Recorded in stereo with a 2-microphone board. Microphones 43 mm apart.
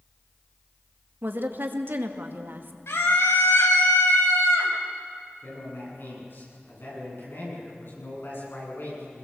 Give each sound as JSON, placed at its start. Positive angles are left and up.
{"t": 1.2, "sound": "a woman speaking", "side_deg": -55, "distance_m": 2.0}
{"t": 2.9, "sound": "a scream", "side_deg": 85, "distance_m": 5.5}
{"t": 5.4, "sound": "a man speaking", "side_deg": 60, "distance_m": 9.5}